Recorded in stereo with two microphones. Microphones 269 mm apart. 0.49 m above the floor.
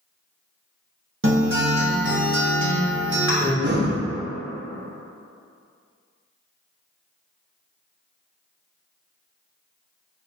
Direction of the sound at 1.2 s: 50° right (ahead or behind).